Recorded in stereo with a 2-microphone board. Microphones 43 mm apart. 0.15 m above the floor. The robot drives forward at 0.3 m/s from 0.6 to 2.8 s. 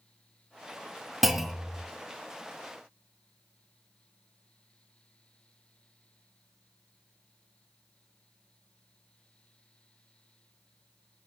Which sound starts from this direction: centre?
A clunk, at 1.2 s.